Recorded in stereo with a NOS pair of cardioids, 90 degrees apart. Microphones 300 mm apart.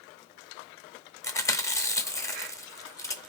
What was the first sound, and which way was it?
Chewing, 10° left.